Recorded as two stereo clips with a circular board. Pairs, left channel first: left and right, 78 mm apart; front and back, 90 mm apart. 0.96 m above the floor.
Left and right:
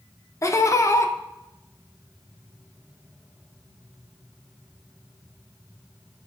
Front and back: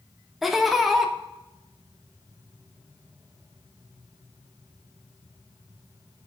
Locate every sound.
0.4 s laughter: 95° left, 0.8 m